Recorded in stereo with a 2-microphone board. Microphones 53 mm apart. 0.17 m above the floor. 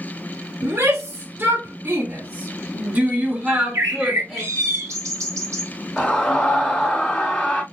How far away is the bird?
About 1.3 m.